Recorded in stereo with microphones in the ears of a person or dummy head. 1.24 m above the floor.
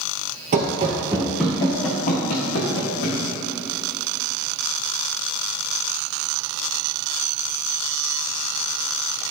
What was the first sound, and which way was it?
Running footsteps, 35° right (ahead or behind).